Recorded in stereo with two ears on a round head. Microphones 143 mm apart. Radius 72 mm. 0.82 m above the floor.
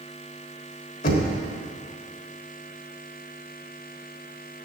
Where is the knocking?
55° left (ahead or behind), 1.2 m.